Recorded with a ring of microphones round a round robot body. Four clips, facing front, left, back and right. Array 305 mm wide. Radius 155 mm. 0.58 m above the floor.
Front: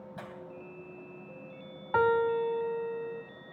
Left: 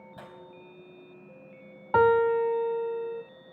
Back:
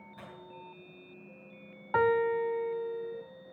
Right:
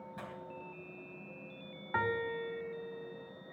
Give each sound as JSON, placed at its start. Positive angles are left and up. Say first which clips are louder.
{"t": 0.2, "sound": "tearing paper", "louder": "even, front 5 dB", "azimuth_deg": 25, "distance_m": 3.5}
{"t": 1.9, "sound": "a piano", "louder": "left 14 dB, front 1 dB", "azimuth_deg": 90, "distance_m": 0.6}